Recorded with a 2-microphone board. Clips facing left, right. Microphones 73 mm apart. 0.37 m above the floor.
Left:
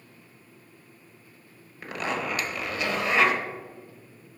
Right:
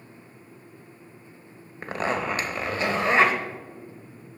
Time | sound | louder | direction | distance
1.8 | a zipper | right 3 dB | 35° right (ahead or behind) | 1.0 m